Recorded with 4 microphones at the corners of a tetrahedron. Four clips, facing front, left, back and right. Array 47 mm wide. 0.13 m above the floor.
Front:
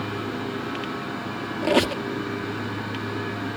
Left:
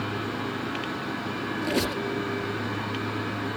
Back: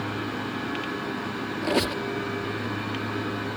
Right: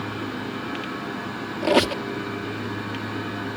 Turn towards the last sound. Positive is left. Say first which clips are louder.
# right 9 dB, front 5 dB
turn(degrees=-60)